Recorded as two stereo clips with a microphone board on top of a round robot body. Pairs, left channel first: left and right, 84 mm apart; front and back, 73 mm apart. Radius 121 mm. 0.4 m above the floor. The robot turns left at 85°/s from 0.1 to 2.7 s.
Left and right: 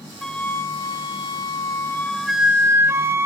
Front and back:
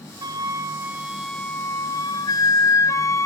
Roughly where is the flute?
Behind.